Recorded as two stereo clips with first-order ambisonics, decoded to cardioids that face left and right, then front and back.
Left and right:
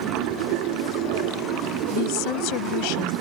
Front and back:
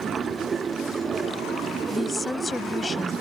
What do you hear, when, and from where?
0.0 s running water: 110° right
1.9 s a woman speaking: 80° left